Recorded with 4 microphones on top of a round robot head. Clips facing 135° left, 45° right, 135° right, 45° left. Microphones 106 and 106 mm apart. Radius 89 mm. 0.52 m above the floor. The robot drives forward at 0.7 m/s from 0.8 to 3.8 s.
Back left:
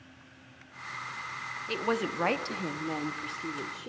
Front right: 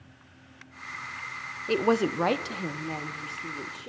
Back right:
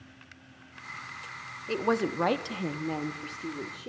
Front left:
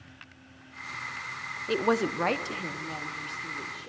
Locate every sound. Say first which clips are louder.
1.7 s a woman speaking: front right 7 dB, front left 1 dB; 25° right, 0.8 m; by 3.9 s 170° right, 1.2 m